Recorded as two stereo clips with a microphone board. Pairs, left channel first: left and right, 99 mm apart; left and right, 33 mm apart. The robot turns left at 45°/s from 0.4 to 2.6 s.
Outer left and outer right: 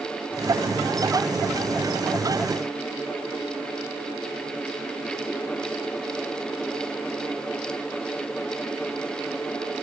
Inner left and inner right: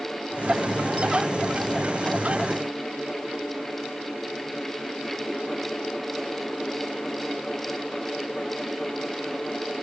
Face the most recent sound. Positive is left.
No sound to turn to.